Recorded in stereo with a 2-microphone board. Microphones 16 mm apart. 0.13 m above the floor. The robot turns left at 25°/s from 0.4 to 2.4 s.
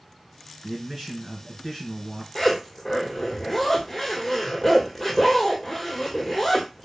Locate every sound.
0.6 s a man speaking: 110° right, 1.8 m; by 2.2 s 150° right, 1.8 m
2.4 s a zipper: 20° left (ahead or behind), 1.1 m